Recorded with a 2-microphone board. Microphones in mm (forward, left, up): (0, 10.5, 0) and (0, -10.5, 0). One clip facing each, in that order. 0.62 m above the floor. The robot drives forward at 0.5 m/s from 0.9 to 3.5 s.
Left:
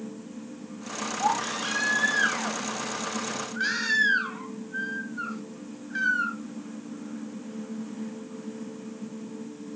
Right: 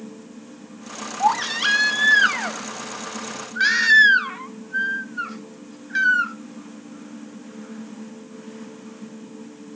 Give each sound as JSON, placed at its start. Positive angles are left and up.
{"t": 1.2, "sound": "a baby crying", "side_deg": -65, "distance_m": 1.8}